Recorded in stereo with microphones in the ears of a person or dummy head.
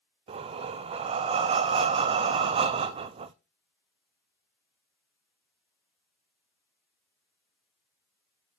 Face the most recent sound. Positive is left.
turn(degrees=-30)  # may be behind; listen again after turning